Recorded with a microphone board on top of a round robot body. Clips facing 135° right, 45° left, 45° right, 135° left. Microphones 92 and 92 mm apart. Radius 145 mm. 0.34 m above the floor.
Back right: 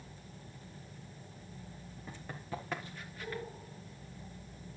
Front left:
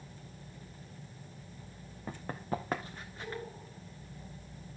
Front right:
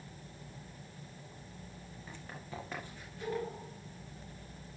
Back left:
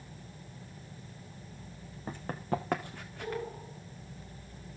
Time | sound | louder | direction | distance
2.1 | running footsteps | front left 6 dB, back left 13 dB | 85° left | 2 m